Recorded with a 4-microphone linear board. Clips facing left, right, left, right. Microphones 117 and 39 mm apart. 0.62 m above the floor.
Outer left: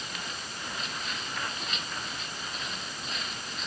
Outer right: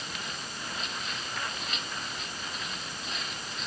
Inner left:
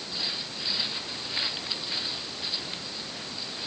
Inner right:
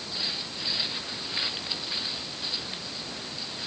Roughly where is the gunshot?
I don't hear a gunshot.